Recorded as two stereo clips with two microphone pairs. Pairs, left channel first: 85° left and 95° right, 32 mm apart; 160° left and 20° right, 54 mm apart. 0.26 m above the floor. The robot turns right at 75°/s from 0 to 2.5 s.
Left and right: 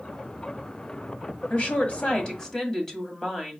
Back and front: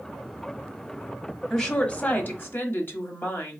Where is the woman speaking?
75° left, 1.5 m; by 3.6 s 150° left, 1.5 m.